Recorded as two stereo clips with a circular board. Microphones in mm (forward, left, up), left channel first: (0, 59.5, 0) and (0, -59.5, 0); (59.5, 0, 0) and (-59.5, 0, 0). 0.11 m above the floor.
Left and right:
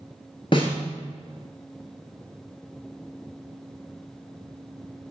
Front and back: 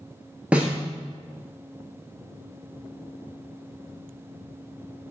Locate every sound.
0.5 s a snare drum: 105° left, 1.0 m